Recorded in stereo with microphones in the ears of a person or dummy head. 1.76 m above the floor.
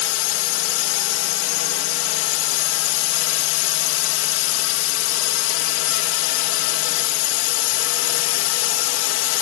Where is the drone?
75° left (ahead or behind).